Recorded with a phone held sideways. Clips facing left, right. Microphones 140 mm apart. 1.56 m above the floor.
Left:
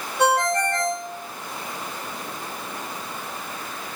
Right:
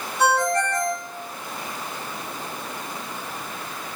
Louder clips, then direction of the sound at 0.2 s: Even; 55° left (ahead or behind).